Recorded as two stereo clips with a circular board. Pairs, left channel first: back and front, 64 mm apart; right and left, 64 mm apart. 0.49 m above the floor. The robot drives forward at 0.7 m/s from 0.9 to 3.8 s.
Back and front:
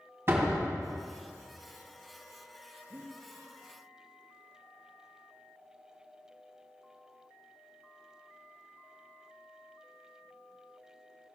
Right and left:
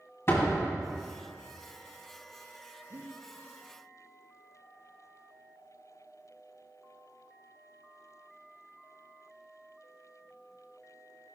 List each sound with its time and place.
0.3 s a door slam: 45° right, 2.5 m
2.9 s breathing: 70° left, 3 m